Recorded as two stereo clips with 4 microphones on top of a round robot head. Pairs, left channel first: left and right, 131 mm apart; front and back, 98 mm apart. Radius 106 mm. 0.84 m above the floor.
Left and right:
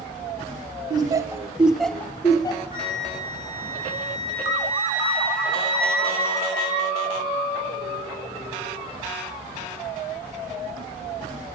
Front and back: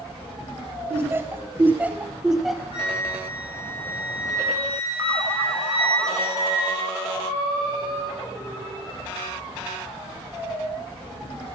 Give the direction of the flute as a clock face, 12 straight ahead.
11 o'clock.